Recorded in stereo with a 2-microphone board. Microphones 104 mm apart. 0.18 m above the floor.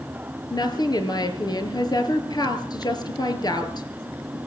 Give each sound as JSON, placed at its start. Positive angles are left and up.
{"t": 0.5, "sound": "a woman speaking", "side_deg": 40, "distance_m": 3.5}